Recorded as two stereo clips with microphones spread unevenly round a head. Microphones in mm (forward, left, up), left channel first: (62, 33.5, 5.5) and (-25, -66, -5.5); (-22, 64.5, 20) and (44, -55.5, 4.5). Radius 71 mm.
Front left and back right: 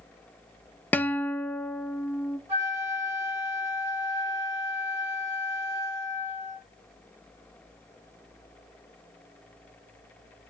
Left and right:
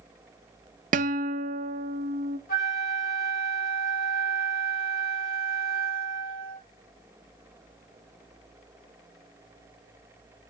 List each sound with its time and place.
0.9 s a guitar: 30° right, 0.6 m
2.5 s a flute: 150° left, 6 m